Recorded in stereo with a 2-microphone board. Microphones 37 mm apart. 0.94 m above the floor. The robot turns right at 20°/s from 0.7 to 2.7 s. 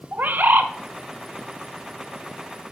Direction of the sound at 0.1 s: 55° right (ahead or behind).